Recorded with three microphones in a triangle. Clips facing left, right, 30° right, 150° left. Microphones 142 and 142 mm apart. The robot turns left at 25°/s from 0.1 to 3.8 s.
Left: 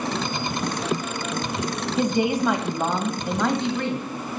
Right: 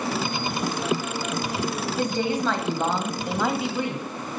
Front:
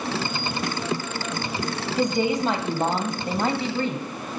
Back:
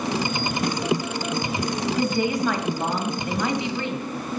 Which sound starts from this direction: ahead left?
A woman speaking, at 2.0 s.